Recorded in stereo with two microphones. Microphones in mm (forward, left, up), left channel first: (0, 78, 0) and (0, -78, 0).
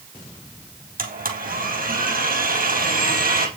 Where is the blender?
65° right (ahead or behind), 3 m.